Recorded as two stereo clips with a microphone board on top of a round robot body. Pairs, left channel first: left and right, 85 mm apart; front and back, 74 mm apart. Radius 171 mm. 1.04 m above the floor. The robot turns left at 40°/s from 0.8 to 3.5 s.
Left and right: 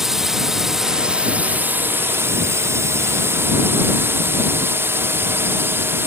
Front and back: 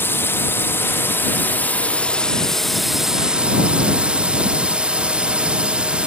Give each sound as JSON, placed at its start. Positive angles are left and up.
{"t": 0.0, "sound": "a drone", "azimuth_deg": -10}